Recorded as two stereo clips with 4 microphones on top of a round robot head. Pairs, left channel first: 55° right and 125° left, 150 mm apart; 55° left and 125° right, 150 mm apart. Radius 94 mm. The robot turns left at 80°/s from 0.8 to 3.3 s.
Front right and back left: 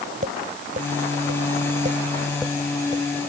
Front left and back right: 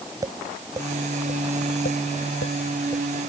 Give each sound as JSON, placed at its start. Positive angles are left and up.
{"t": 0.2, "sound": "tapping", "azimuth_deg": 165}